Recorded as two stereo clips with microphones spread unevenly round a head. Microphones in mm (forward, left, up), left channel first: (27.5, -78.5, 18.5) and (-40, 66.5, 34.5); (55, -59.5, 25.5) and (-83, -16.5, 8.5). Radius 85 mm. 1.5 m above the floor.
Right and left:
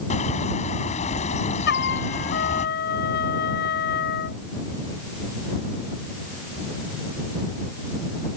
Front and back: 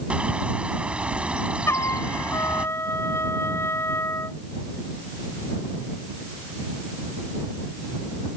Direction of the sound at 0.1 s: 115° right.